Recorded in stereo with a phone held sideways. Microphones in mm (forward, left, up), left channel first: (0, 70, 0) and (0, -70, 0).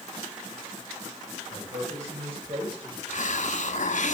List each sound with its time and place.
1.5 s a man speaking: 70° right (ahead or behind), 4 m; by 3.0 s 40° right (ahead or behind), 3.5 m
3.1 s a hiss: 65° left (ahead or behind), 0.8 m